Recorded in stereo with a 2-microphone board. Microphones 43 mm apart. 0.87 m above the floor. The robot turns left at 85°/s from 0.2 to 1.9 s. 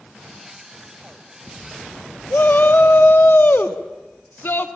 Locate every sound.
2.3 s a shout: 50° left (ahead or behind), 1.4 m